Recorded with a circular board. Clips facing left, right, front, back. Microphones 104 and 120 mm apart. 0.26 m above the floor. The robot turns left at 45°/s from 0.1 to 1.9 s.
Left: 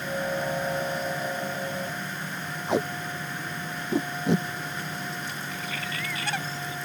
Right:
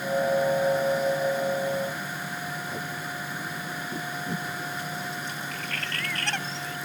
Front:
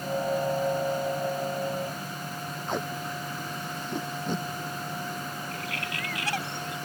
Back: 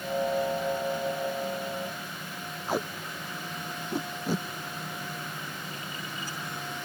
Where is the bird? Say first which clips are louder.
Even, front 4 dB; 5° left.